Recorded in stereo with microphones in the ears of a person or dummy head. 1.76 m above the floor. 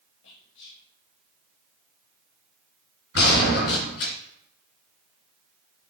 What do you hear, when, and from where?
0.2 s whispering: 70° left (ahead or behind), 3 m
3.1 s a gunshot: 55° left (ahead or behind), 3 m